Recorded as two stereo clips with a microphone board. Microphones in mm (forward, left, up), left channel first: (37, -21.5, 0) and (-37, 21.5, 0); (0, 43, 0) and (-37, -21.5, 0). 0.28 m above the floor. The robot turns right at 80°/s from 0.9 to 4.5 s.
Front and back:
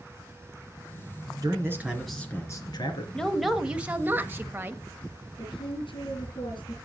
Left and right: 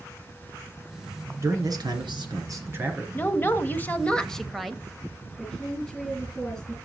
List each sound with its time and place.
1.4 s a man speaking: 170° right, 3 m; by 3.0 s 40° right, 3 m
3.1 s a woman speaking: 40° left, 1.1 m; by 4.8 s 150° left, 1.1 m
5.4 s a woman speaking: 20° right, 4 m